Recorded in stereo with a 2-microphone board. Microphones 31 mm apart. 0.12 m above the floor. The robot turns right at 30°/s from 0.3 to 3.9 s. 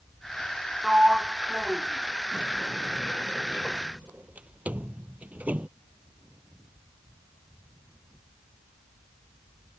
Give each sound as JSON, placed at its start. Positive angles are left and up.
{"t": 0.8, "sound": "a sliding door", "side_deg": -20}